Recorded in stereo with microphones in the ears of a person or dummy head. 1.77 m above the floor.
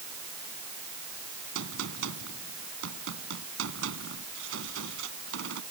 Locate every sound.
1.6 s a gunshot: 85° right